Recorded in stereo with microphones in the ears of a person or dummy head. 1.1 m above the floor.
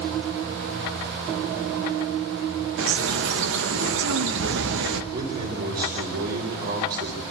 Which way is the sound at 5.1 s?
55° right (ahead or behind).